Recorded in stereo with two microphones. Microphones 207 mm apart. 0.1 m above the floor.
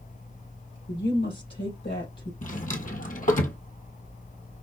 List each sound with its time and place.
0.9 s a woman speaking: 65° left (ahead or behind), 3.5 m
2.4 s a drawer: 40° left (ahead or behind), 1.0 m